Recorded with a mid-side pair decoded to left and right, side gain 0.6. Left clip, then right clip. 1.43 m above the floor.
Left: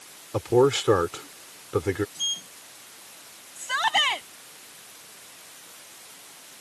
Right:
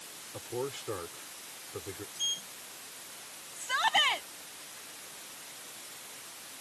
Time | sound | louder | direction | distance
0.3 | a man speaking | left 17 dB | 70° left | ?
2.1 | a sliding door | left 5 dB | 25° left | ?
3.6 | a shout | left 4 dB | 20° left | ?